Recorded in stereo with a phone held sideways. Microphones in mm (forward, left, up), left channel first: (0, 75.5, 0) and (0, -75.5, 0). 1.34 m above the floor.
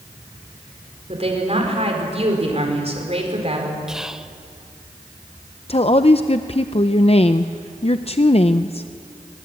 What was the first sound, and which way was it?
A woman speaking, 45° right (ahead or behind).